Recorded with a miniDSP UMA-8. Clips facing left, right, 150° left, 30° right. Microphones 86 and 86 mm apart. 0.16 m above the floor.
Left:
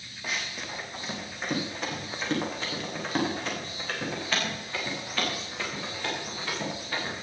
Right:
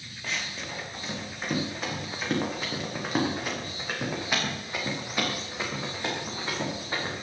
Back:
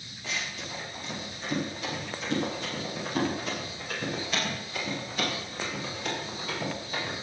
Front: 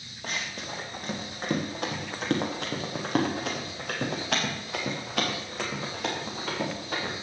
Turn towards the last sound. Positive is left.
turn(degrees=-25)